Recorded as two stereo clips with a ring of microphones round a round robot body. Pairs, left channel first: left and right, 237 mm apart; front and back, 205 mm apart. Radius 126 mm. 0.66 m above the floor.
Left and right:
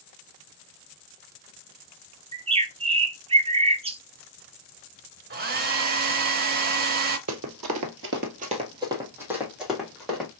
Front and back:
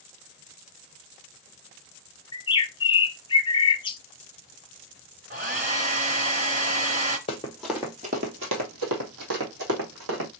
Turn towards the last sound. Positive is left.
turn(degrees=175)